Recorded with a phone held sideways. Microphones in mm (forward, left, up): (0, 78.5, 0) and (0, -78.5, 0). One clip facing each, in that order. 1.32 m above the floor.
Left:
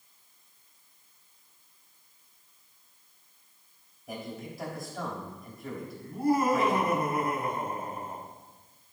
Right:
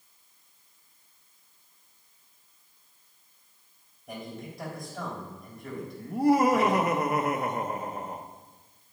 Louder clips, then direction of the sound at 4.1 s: Even; 5° left (ahead or behind).